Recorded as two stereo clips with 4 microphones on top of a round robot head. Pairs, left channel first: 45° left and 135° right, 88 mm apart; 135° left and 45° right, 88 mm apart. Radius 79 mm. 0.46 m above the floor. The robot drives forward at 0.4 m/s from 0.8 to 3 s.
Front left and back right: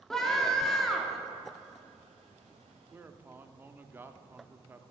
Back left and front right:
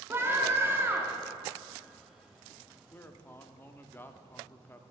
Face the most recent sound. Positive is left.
turn(degrees=180)